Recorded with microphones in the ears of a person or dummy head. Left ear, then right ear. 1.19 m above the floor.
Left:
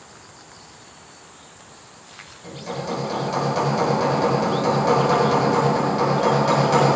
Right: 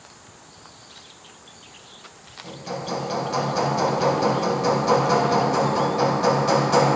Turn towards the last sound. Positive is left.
turn(degrees=5)  # may be behind; listen again after turning